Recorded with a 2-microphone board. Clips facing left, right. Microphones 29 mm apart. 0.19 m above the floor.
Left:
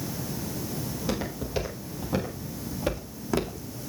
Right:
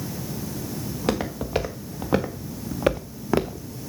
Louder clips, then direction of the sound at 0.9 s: Right 7 dB; 80° right.